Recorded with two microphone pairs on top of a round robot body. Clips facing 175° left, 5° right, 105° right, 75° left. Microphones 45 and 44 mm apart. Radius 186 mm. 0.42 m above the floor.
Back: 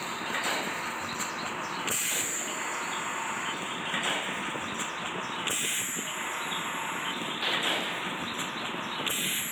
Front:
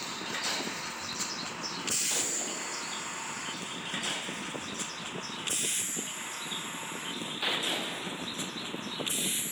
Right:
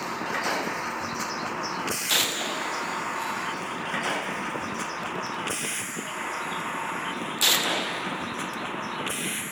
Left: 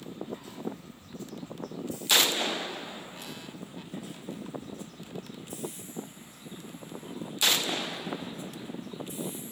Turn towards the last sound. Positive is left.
turn(degrees=-125)